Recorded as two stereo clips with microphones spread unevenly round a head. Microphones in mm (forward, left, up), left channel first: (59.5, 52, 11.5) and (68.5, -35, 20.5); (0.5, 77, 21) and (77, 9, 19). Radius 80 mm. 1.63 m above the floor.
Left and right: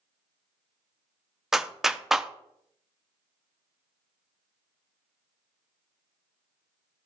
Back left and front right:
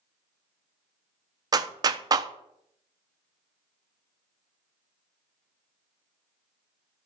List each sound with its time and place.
1.5 s a clap: 5° right, 0.6 m